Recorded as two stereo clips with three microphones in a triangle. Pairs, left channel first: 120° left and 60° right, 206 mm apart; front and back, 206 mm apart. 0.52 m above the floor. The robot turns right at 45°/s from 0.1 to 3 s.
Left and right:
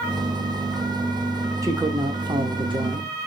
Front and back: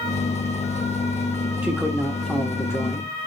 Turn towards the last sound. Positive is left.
turn(degrees=-45)